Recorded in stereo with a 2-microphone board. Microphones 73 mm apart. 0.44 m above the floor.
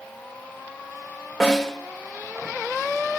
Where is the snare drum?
10° left (ahead or behind), 6.5 m.